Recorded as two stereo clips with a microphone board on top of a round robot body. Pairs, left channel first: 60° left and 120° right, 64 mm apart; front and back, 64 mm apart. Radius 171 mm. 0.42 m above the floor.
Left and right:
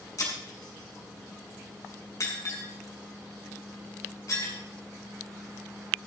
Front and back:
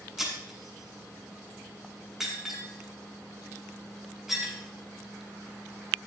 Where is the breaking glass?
100° left, 8 m.